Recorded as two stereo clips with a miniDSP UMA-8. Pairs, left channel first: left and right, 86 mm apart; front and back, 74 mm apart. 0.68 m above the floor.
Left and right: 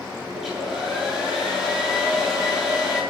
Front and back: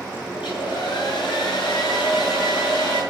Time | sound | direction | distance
0.3 | a hair dryer | 5° right | 7.5 m